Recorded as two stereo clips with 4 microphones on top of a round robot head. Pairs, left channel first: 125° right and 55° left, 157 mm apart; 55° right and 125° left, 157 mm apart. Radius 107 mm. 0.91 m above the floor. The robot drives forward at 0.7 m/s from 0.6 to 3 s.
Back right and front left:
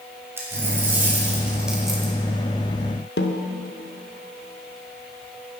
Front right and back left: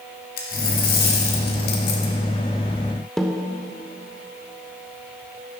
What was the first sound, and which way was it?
A dropped coin, 20° right.